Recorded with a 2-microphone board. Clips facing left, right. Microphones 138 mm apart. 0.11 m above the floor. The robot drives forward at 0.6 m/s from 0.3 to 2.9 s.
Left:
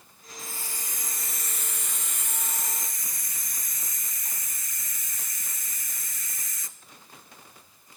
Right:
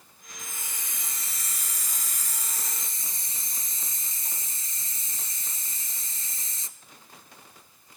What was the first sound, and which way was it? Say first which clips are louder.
A hiss: left 2 dB; 20° right (ahead or behind).